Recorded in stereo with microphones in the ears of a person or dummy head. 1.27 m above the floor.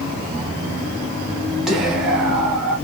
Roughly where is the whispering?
Centre.